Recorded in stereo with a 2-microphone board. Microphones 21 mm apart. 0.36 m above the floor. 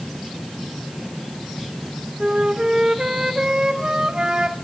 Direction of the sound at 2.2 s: 40° right (ahead or behind).